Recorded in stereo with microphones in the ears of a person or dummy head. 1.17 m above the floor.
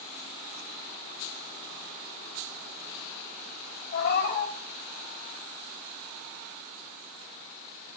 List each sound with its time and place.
3.9 s a cat meowing: 55° left (ahead or behind), 3 m